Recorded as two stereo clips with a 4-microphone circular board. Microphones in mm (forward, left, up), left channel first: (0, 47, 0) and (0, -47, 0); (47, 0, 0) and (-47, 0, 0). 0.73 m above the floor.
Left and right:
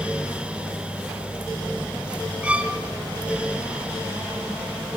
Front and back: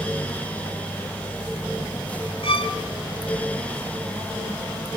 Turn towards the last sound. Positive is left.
turn(degrees=-15)